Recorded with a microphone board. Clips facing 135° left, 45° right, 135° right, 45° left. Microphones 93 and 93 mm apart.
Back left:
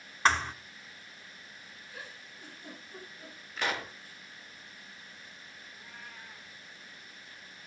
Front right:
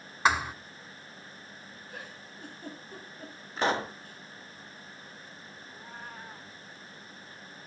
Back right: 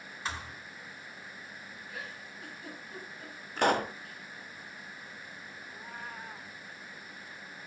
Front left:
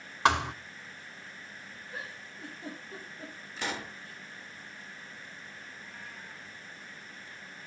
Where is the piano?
No piano in this recording.